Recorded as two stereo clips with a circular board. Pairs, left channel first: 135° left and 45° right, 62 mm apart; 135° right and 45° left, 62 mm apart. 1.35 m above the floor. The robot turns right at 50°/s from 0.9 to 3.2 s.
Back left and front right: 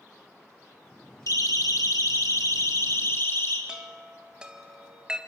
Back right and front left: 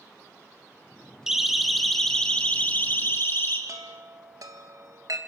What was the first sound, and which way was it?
A siren, 125° left.